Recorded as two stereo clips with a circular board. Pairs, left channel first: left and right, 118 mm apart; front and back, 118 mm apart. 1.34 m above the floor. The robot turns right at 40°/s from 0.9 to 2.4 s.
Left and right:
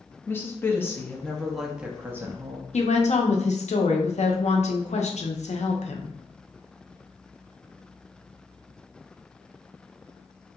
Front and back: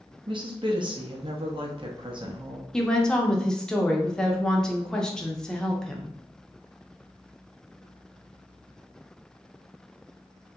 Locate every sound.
0.3 s a woman speaking: 155° left, 0.5 m; by 2.6 s 145° right, 0.5 m
2.7 s a woman speaking: 85° left, 0.5 m